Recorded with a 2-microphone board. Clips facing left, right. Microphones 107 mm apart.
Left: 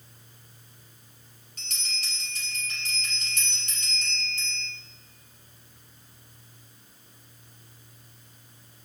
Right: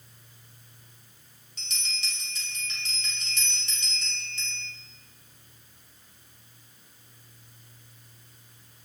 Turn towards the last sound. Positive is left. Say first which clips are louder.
# even
turn(degrees=50)  # may be behind; listen again after turning